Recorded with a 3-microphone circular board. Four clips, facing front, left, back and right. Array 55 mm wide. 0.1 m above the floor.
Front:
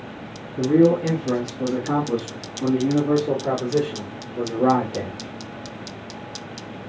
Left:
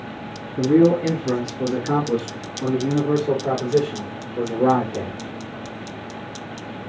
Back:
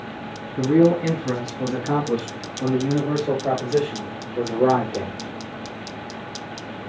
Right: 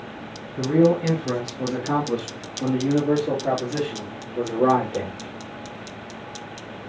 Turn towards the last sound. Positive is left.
turn(degrees=-140)